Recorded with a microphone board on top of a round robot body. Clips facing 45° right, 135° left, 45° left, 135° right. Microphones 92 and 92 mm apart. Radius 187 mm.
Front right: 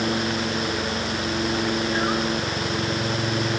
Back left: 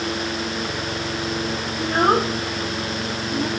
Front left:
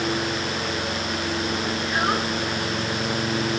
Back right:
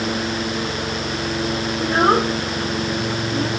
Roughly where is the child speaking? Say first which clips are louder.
Back left 5 dB, back right 10 dB; behind.